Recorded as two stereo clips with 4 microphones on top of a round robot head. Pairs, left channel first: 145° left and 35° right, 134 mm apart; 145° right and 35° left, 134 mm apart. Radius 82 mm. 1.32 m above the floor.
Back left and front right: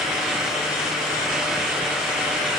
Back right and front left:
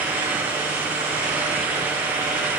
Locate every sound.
Only background noise.